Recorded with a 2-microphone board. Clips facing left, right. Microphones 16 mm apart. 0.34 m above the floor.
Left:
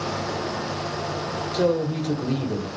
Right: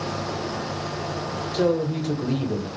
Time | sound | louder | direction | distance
1.5 | a man speaking | even | centre (ahead or behind) | 0.9 m